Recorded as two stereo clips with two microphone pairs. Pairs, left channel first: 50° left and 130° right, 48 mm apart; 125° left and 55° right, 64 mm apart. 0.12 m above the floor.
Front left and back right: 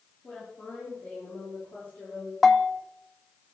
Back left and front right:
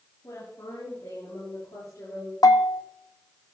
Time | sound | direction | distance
0.2 | a woman speaking | 105° left | 7 m
2.4 | a bell | 135° left | 0.9 m